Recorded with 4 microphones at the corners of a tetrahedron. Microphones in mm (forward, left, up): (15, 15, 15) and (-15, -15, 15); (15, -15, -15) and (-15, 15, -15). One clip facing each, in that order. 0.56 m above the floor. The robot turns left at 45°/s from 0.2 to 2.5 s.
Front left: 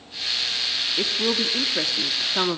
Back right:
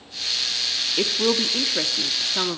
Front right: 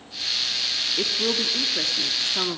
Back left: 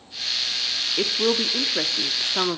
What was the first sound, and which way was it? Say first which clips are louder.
A woman speaking: back right 3 dB, back left 4 dB; straight behind.